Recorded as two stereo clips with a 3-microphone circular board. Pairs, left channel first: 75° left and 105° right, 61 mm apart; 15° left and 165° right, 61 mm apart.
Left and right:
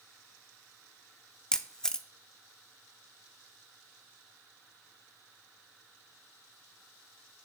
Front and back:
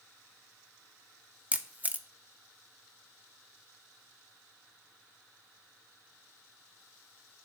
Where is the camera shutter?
150° left, 0.6 m.